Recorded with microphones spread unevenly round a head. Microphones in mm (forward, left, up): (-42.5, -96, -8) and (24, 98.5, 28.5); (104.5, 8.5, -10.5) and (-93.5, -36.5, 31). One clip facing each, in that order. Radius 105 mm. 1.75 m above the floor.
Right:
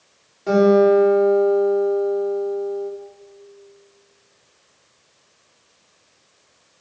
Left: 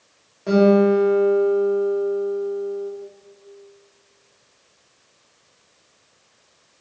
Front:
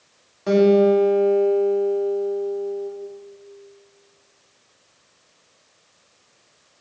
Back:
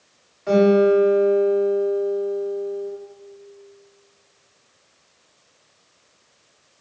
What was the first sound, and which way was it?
A guitar, 15° right.